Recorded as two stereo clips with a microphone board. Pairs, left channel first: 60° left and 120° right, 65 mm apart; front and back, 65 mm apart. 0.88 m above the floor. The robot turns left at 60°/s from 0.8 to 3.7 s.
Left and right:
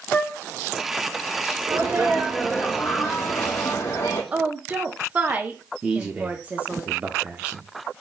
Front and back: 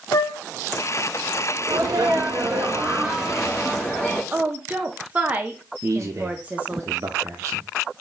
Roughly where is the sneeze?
Behind.